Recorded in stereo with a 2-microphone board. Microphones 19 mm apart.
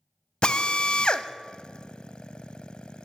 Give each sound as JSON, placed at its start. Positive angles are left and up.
{"t": 0.4, "sound": "a drill", "side_deg": 65, "distance_m": 0.6}